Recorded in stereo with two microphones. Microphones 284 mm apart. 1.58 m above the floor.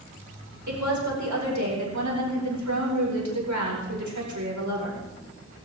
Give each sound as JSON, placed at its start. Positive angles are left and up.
{"t": 0.7, "sound": "a woman speaking", "side_deg": -85, "distance_m": 4.5}